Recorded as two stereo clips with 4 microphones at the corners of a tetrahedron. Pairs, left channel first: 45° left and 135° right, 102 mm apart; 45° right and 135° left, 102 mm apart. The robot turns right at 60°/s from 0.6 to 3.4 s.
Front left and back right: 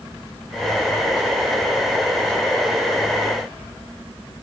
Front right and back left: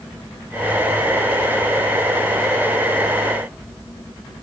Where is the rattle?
No rattle in this recording.